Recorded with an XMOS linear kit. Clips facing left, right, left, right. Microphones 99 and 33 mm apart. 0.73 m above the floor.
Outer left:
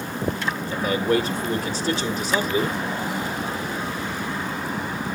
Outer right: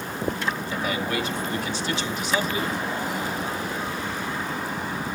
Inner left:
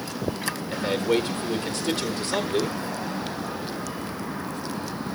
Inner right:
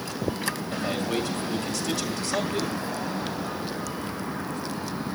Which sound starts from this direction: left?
A man speaking, at 0.7 s.